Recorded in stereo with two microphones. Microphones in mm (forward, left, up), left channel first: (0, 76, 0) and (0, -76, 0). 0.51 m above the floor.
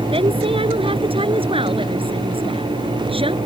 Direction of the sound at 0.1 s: 35° right (ahead or behind).